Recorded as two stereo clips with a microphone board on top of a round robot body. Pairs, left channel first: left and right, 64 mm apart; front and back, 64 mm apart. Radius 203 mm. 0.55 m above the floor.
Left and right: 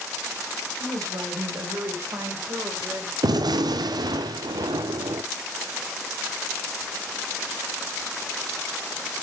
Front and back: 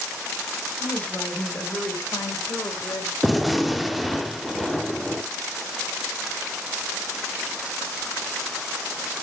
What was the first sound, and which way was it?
A woman speaking, 65° right.